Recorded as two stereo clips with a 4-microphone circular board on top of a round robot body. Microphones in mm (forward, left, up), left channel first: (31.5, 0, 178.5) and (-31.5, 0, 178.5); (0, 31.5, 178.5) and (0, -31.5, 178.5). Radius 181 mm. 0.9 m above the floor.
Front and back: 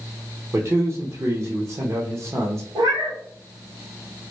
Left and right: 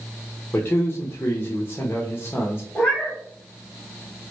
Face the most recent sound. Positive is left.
turn(degrees=165)